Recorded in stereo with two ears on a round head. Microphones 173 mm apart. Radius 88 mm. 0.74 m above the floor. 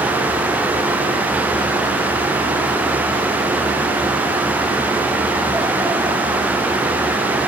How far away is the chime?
I don't hear a chime.